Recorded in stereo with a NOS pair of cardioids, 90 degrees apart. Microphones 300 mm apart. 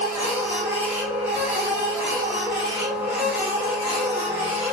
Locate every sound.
0.0 s a machine running: 5° right, 1.3 m